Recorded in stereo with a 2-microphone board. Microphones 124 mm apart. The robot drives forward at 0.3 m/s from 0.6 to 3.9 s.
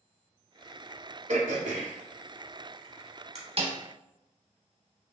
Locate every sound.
1.3 s throat clearing: 75° right (ahead or behind), 0.8 m; by 3.4 s 60° right (ahead or behind), 0.9 m
3.6 s a snare drum: 50° right (ahead or behind), 0.7 m